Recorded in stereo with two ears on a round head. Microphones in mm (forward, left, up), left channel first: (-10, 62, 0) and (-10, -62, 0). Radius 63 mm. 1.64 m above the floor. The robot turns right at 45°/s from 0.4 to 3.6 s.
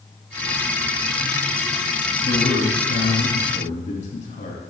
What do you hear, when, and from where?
2.2 s a man speaking: 60° left, 3 m; by 4.6 s 120° left, 3 m